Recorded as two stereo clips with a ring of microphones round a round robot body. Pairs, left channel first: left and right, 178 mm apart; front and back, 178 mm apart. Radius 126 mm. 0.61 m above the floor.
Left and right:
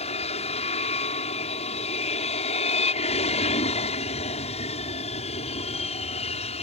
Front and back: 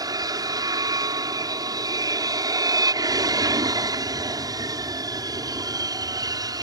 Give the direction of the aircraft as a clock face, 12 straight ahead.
8 o'clock.